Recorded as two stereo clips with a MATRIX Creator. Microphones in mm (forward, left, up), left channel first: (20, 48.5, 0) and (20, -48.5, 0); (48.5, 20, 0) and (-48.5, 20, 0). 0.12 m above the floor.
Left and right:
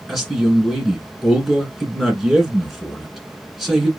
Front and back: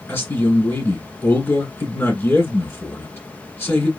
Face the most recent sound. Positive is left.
turn(degrees=-5)